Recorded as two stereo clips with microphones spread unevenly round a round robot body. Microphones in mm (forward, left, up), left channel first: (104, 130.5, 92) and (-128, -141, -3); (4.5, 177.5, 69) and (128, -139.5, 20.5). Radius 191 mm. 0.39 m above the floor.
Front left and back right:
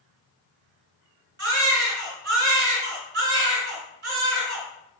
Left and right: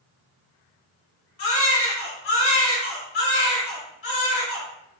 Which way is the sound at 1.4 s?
170° left.